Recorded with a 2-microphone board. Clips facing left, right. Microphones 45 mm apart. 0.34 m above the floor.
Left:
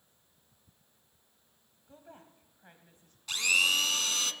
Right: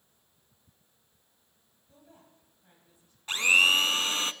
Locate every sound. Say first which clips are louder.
1.9 s a woman speaking: left 4 dB; 40° left (ahead or behind), 2 m; by 3.2 s 55° left (ahead or behind), 2.5 m
3.3 s a blender: right 5 dB; 30° right (ahead or behind), 0.5 m